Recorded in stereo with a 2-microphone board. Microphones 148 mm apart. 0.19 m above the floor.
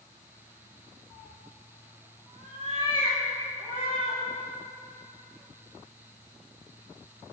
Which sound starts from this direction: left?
A cat meowing, at 1.1 s.